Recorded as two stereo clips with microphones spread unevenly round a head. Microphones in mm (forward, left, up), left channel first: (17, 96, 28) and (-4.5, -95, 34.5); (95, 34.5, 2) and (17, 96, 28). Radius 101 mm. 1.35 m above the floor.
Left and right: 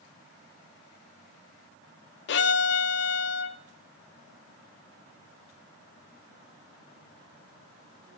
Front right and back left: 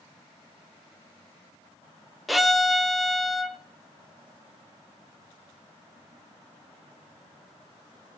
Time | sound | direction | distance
2.3 | a violin | 65° left | 0.5 m